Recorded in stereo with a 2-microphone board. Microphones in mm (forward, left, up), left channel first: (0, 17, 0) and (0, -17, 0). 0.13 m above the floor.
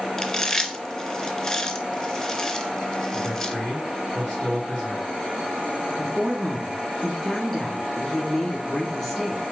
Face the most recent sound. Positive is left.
turn(degrees=10)  # may be behind; listen again after turning